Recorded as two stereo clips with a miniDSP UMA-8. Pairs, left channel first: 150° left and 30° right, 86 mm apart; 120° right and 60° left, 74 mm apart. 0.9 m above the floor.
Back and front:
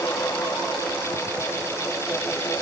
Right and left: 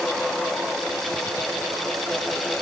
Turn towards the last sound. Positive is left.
No sound to turn to.